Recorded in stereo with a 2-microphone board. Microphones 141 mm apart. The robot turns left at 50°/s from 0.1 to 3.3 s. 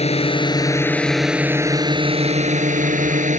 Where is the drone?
55° left; by 3.4 s 105° right.